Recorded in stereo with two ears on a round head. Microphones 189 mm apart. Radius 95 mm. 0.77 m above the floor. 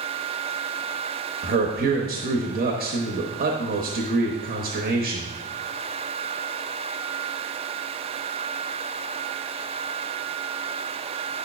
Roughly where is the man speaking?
Right.